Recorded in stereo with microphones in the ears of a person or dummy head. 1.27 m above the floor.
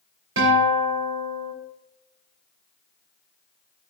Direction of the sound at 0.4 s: 80° right.